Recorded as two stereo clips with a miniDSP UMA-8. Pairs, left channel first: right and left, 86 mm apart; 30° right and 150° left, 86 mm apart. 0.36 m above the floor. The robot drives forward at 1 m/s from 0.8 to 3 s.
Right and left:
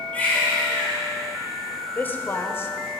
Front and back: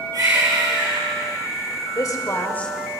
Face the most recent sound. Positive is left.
turn(degrees=-130)